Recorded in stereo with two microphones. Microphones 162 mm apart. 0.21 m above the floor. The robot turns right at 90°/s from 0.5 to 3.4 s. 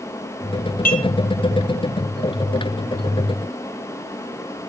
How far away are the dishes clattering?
About 1.9 m.